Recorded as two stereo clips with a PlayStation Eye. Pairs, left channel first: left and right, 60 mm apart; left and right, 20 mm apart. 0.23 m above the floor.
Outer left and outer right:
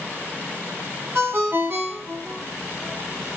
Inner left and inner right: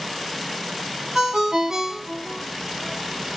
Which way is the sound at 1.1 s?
40° right (ahead or behind).